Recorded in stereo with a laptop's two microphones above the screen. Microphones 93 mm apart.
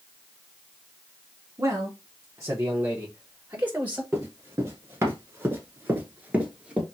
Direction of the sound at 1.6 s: 35° right (ahead or behind).